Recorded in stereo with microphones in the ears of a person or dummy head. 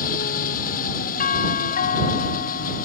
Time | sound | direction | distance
0.0 | an engine running | 45° left (ahead or behind) | ?
1.2 | a doorbell | 45° left (ahead or behind) | ?